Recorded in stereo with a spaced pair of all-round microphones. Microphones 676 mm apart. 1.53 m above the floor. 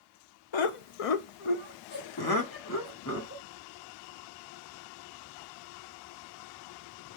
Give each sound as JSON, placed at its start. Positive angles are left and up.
{"t": 0.5, "sound": "laughter", "side_deg": 45, "distance_m": 0.5}